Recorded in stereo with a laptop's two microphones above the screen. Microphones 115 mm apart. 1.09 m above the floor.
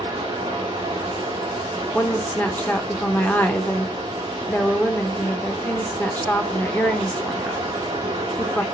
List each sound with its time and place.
0.0 s running water: 35° right (ahead or behind), 1.0 m
1.9 s a woman speaking: 15° left (ahead or behind), 0.9 m